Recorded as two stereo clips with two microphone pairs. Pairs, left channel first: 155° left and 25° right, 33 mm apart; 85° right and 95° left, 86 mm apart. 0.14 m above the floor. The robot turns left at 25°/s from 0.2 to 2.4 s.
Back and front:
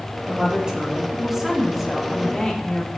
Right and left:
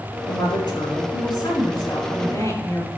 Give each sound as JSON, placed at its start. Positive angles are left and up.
{"t": 0.3, "sound": "a woman speaking", "azimuth_deg": -80, "distance_m": 3.5}